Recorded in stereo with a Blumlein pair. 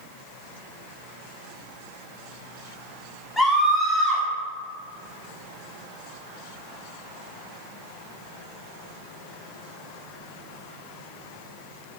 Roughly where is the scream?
Ahead.